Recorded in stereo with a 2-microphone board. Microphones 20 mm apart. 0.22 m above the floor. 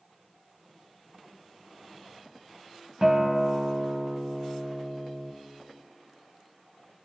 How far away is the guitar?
About 1.1 m.